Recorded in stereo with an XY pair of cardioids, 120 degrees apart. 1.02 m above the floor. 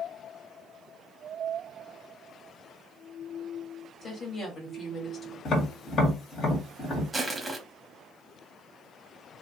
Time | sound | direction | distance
4.0 | a woman speaking | 35° left | 1.6 m
5.5 | tapping | 55° left | 1.7 m
7.1 | crushing | 15° right | 0.9 m